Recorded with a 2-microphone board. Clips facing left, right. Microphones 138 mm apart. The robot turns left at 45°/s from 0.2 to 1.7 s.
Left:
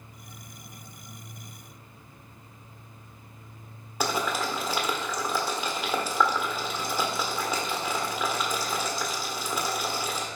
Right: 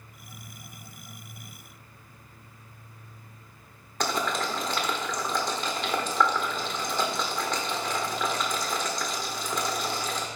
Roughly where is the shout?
I don't hear a shout.